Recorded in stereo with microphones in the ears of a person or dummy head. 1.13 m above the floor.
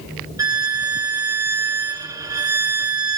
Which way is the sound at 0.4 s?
20° right (ahead or behind).